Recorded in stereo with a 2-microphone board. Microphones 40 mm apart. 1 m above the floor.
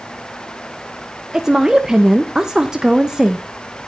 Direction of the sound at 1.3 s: 15° right (ahead or behind).